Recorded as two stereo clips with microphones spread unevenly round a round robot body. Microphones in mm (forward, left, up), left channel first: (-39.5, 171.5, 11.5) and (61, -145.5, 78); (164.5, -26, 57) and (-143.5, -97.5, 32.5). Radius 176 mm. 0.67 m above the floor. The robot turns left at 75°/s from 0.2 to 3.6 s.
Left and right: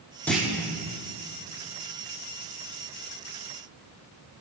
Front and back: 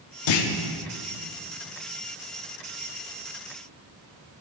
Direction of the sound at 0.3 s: 25° left.